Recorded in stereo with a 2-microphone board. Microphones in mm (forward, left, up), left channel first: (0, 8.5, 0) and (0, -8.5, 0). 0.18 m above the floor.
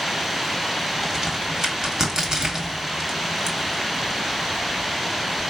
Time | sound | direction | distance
1.0 | a crack | 25° right (ahead or behind) | 1.3 m